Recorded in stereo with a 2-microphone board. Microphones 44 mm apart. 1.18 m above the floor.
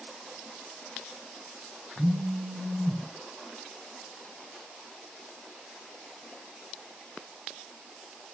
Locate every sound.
2.0 s a phone buzzing: 65° right (ahead or behind), 3 m